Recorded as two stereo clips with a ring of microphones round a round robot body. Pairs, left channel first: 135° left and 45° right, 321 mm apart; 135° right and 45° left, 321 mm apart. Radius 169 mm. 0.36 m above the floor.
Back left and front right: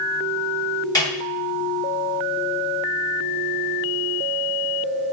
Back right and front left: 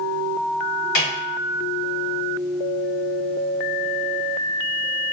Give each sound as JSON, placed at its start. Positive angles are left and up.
{"t": 0.9, "sound": "a snare drum", "azimuth_deg": -150, "distance_m": 1.6}